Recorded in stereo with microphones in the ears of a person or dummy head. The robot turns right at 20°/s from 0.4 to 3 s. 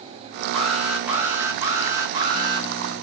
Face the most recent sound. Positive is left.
turn(degrees=-130)